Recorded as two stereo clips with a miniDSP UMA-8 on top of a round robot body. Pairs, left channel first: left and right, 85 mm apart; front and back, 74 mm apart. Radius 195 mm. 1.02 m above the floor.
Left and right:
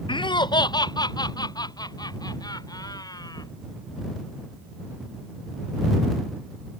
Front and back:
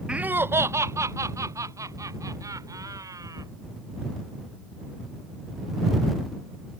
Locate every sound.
0.1 s laughter: 100° left; by 3.5 s 135° left